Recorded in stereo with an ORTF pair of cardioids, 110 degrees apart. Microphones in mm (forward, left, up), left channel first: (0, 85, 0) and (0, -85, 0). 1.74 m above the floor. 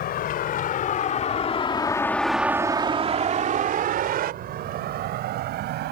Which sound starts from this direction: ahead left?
A vehicle, at 0.0 s.